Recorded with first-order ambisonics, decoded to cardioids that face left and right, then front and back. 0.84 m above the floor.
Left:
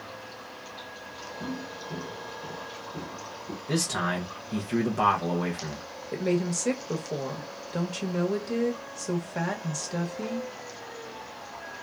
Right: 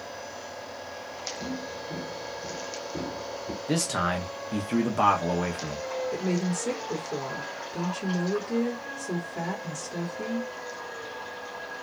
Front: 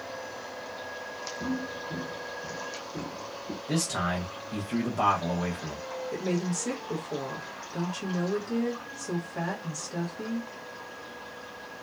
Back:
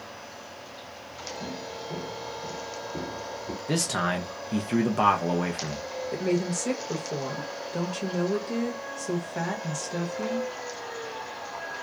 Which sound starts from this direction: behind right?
A man speaking, at 3.7 s.